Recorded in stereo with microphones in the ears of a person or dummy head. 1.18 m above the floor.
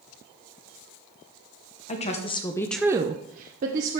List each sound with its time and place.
1.9 s a woman speaking: 30° left (ahead or behind), 1.2 m; by 4.0 s 45° right (ahead or behind), 1.2 m